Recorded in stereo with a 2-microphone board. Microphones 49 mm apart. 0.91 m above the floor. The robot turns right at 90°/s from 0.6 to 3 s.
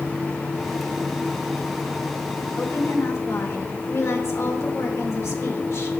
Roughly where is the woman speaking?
Ahead left.